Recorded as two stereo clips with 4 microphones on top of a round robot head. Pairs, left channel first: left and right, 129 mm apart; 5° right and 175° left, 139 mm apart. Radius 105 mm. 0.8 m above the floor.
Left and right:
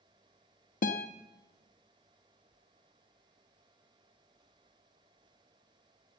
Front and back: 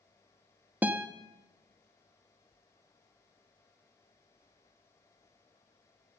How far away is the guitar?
About 0.9 m.